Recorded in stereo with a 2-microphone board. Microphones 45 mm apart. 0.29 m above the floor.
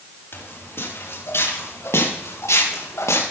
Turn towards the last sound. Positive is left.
turn(degrees=85)